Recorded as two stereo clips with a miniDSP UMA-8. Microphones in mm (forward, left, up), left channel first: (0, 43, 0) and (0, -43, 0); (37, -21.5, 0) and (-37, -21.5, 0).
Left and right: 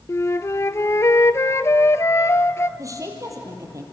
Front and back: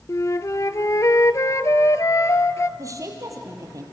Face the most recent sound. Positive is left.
turn(degrees=-140)